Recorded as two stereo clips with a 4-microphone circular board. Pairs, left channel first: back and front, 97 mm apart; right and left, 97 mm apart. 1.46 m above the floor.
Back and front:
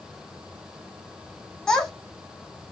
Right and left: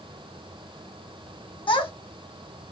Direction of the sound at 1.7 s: 95° right.